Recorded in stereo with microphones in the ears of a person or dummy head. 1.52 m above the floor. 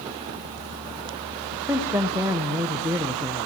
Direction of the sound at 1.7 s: 15° right (ahead or behind).